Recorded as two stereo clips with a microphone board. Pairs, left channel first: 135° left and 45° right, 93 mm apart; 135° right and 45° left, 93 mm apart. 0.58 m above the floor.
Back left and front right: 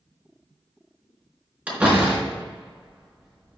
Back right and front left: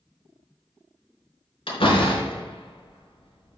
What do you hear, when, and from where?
1.7 s a door slam: 120° right, 4.5 m